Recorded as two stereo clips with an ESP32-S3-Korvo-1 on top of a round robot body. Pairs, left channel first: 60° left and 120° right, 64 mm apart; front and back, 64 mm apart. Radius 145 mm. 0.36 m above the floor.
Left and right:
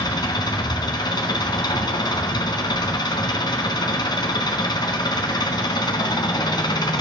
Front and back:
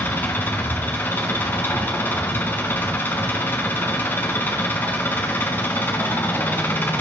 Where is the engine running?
65° left, 1.0 m.